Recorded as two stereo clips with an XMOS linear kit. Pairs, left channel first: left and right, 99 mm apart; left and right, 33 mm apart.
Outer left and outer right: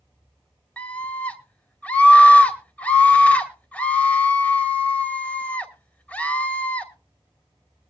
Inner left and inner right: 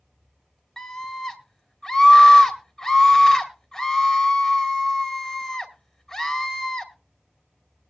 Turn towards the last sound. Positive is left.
turn(degrees=15)  # may be behind; listen again after turning